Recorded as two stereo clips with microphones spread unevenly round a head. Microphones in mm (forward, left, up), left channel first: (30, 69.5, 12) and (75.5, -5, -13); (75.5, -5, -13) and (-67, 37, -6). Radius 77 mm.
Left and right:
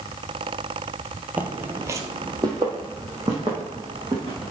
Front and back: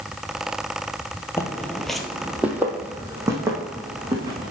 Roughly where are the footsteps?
Ahead left.